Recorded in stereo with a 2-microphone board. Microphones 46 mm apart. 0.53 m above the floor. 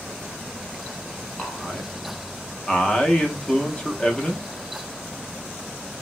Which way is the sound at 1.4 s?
20° left (ahead or behind).